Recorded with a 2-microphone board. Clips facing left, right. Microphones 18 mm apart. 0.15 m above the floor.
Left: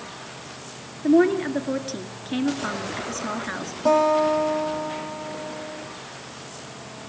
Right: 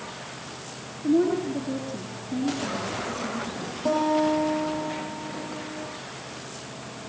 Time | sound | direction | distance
1.0 | a woman speaking | 55° left (ahead or behind) | 2.5 m
3.9 | a guitar | 20° left (ahead or behind) | 6 m